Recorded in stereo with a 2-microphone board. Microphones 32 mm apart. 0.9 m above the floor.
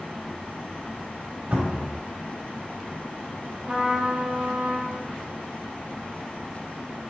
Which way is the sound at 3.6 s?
25° right (ahead or behind).